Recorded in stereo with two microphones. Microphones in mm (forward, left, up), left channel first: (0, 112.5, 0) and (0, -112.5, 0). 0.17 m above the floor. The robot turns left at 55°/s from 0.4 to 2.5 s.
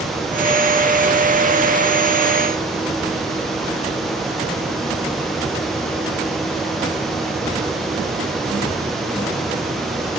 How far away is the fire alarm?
No fire alarm in this recording.